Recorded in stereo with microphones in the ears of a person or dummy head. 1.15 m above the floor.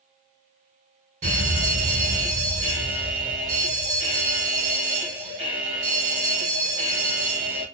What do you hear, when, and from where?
1.2 s a fire alarm: 35° right (ahead or behind), 1.8 m